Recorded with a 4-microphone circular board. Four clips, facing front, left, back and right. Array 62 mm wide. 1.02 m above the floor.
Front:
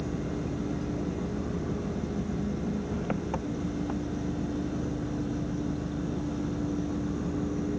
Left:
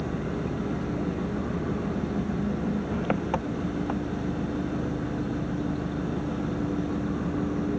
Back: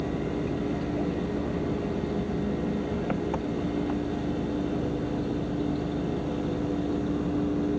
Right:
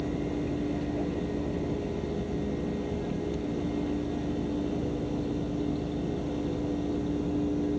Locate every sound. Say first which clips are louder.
0.0 s an engine running: even, back 4 dB; 100° left